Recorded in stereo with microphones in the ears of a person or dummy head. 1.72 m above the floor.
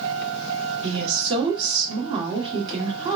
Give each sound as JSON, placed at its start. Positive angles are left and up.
{"t": 0.8, "sound": "a woman speaking", "side_deg": -30, "distance_m": 1.4}